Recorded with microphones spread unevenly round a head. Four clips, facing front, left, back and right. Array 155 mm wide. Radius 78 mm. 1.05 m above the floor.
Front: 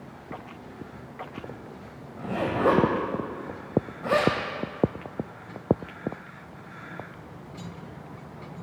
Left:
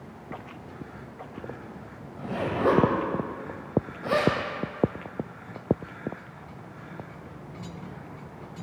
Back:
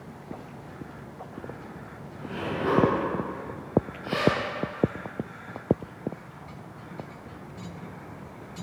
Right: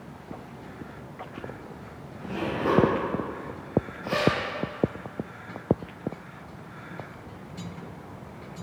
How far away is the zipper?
About 1.7 m.